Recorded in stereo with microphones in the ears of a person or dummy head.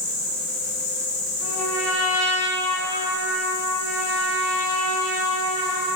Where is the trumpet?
45° left (ahead or behind), 2.5 m.